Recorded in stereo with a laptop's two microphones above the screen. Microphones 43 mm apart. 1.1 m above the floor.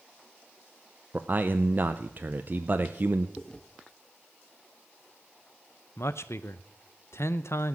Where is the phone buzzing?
I don't hear a phone buzzing.